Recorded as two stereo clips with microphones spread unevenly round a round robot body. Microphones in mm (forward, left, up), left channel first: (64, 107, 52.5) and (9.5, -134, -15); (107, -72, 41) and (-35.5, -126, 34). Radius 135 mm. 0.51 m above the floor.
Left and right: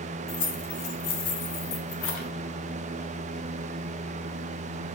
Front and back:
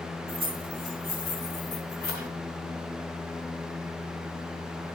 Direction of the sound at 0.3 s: 150° left.